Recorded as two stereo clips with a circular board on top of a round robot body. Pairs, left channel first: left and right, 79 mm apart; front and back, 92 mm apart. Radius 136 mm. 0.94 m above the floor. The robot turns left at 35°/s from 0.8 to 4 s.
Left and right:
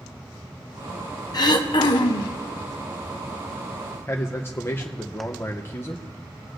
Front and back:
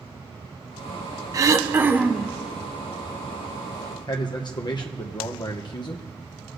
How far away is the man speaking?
About 0.9 m.